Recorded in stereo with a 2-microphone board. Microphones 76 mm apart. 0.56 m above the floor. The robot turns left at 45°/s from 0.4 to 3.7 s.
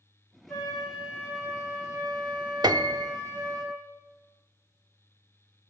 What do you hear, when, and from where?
0.5 s a flute: 10° left, 7 m; by 3.6 s 135° right, 7 m
2.6 s a piano: 65° right (ahead or behind), 0.6 m; by 3.1 s 60° right (ahead or behind), 0.6 m